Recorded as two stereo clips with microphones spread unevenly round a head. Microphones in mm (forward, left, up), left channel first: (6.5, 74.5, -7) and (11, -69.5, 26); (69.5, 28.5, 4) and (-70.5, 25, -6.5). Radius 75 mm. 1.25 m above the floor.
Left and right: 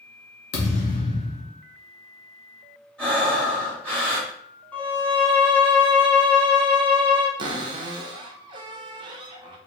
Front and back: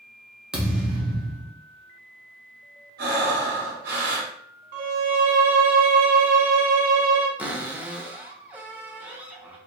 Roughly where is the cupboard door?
Right.